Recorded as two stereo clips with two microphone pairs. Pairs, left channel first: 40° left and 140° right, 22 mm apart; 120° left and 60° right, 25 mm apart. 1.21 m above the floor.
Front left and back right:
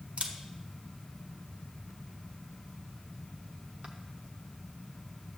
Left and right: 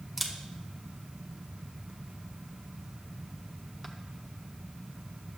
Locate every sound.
0.2 s a camera shutter: 140° right, 0.7 m